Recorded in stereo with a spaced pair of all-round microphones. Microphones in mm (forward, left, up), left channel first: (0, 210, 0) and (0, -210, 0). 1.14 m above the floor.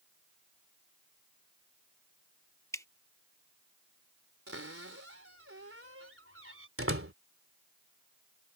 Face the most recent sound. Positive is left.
turn(degrees=-30)  # may be behind; listen again after turning